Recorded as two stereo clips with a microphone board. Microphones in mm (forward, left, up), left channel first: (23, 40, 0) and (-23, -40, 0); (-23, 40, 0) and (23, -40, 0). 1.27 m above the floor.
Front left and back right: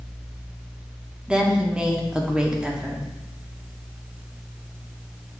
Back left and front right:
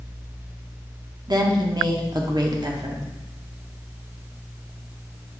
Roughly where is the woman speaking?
Ahead right.